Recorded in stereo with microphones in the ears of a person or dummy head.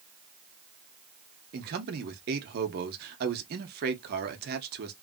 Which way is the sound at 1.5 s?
50° right (ahead or behind).